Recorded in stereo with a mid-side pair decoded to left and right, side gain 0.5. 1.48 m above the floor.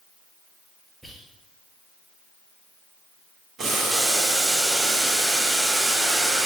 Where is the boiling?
60° right, 1.7 m.